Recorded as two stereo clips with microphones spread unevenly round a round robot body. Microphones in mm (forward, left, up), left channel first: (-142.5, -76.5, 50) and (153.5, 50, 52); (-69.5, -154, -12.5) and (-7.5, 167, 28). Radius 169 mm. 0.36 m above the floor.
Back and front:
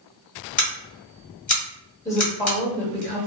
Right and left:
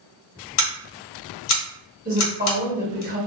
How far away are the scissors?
About 1.2 m.